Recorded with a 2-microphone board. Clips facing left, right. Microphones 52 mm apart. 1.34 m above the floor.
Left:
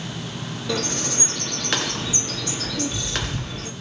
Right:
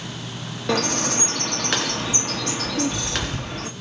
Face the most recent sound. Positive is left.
turn(degrees=-65)  # may be behind; listen again after turning